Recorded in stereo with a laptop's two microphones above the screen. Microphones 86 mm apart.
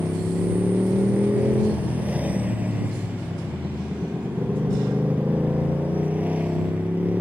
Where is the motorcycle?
15° right (ahead or behind).